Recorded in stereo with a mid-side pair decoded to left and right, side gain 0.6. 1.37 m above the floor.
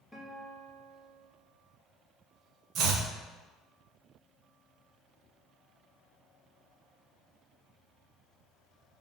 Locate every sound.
0.1 s a guitar: straight ahead, 2.5 m
2.8 s chopping: 55° right, 1.3 m